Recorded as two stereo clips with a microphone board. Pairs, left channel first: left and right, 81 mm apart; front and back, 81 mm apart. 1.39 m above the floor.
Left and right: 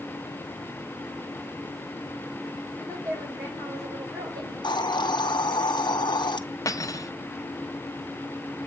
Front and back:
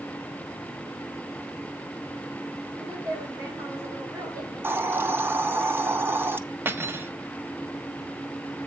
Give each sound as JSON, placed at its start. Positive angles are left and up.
{"t": 2.8, "sound": "a woman speaking", "azimuth_deg": -125, "distance_m": 5.0}
{"t": 4.6, "sound": "a hiss", "azimuth_deg": 115, "distance_m": 0.6}
{"t": 6.7, "sound": "cutlery clinking", "azimuth_deg": 125, "distance_m": 0.8}